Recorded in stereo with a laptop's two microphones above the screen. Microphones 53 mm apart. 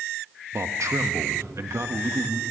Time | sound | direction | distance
0.5 | a man speaking | 70° right (ahead or behind) | 1.2 m